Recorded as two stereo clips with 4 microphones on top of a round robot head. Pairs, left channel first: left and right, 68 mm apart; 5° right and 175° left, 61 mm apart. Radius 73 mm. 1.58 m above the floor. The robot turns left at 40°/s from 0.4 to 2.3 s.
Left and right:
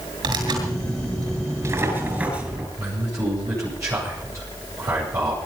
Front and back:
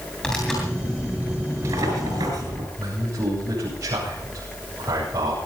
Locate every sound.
0.2 s tearing paper: 85° right, 7.5 m; by 2.7 s 160° right, 7.5 m
2.8 s a man speaking: 135° right, 9 m